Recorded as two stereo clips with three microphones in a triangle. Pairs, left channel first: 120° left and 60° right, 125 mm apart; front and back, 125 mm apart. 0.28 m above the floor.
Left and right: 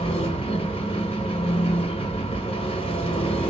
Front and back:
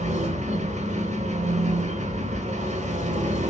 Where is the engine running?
165° left, 0.8 m.